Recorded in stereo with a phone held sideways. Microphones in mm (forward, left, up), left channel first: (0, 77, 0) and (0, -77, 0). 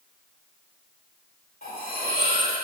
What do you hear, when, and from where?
1.6 s cutlery clinking: 75° left (ahead or behind), 2.5 m